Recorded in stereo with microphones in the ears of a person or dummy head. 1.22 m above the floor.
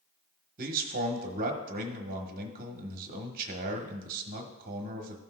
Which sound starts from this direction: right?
A man speaking, at 0.6 s.